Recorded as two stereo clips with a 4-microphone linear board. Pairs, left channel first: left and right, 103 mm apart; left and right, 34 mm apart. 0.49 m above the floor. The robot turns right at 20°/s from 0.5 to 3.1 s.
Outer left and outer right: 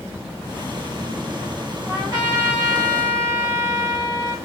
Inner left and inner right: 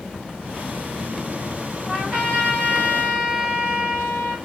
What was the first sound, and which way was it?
A trumpet, 40° right (ahead or behind).